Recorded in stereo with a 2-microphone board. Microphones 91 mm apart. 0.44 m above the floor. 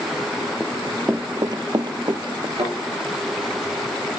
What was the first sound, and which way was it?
Running footsteps, 5° right (ahead or behind).